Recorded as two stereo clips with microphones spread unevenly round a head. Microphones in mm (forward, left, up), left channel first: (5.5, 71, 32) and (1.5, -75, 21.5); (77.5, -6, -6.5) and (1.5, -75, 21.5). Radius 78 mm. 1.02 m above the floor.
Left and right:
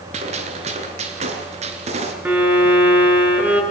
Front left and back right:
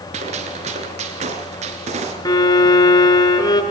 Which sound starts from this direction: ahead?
A violin, at 2.2 s.